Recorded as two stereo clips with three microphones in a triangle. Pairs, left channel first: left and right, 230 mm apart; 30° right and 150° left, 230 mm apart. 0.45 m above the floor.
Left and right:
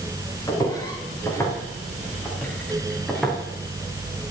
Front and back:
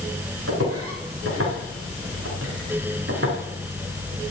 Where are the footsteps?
165° left, 5 m; by 3.4 s straight behind, 3.5 m.